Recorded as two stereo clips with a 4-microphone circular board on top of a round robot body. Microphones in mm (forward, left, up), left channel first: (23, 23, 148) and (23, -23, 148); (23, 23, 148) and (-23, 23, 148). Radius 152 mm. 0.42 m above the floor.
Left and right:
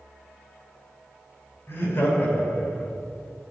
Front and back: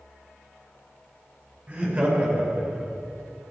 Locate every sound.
1.7 s laughter: 115° left, 5.5 m; by 2.9 s 110° left, 5 m